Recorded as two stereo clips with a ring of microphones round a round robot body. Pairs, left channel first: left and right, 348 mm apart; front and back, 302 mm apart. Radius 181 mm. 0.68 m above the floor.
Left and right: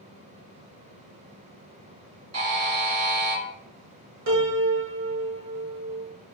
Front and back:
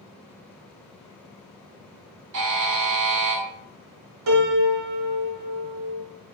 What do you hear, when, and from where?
2.3 s a buzzer: 135° right, 1.7 m
4.3 s a piano: 145° right, 1.0 m